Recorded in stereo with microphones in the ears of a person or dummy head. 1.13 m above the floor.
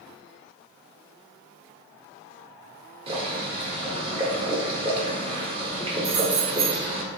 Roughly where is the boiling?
Right.